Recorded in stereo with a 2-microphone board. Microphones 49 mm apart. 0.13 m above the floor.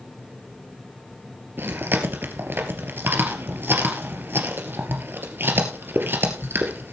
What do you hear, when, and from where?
1.6 s chewing: 45° right (ahead or behind), 2.5 m